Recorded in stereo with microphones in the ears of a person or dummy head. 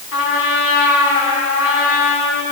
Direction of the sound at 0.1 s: 75° left (ahead or behind).